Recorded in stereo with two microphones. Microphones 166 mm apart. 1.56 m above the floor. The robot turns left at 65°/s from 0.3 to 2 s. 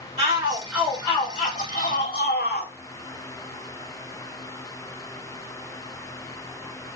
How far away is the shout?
About 2 m.